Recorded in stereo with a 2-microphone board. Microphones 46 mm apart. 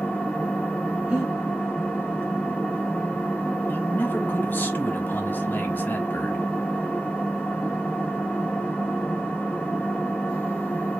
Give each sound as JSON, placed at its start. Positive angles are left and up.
{"t": 0.0, "sound": "an engine running", "side_deg": 25, "distance_m": 1.4}
{"t": 1.1, "sound": "breathing", "side_deg": -20, "distance_m": 1.7}
{"t": 3.7, "sound": "a man speaking", "side_deg": 45, "distance_m": 1.4}